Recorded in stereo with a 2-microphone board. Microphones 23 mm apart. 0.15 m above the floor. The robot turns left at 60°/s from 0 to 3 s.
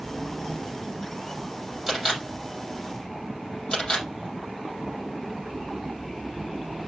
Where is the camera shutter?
15° right (ahead or behind), 5.5 m; by 4.0 s 50° left (ahead or behind), 5.5 m.